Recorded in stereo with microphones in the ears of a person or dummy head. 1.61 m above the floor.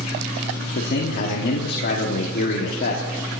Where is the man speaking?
55° left (ahead or behind), 1.4 m.